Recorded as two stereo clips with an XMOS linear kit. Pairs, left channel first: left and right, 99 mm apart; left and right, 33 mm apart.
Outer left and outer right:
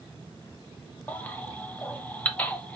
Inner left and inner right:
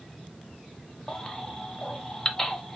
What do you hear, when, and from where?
1.1 s a baby crying: 15° left (ahead or behind), 0.6 m